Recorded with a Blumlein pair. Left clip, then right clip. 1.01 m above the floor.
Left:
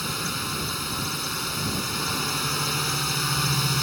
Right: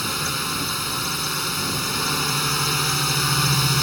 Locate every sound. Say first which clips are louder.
0.0 s a drone: right 4 dB; 10° right